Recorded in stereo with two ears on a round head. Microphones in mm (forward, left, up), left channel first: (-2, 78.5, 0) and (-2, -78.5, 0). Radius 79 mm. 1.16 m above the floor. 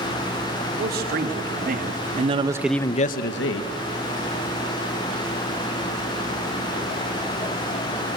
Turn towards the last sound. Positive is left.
turn(degrees=85)